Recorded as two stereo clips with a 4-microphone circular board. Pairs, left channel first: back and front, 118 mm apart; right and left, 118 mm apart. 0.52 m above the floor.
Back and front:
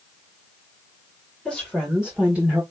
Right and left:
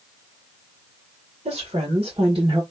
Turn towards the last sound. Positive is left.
turn(degrees=70)